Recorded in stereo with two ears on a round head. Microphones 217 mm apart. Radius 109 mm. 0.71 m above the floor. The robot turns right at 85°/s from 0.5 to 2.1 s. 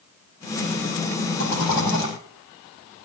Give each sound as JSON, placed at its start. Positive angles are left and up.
{"t": 1.4, "sound": "a rattle", "azimuth_deg": 45, "distance_m": 7.0}